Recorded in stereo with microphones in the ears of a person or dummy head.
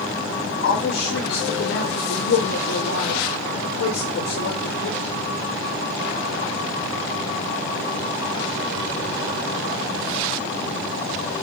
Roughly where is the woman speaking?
Left.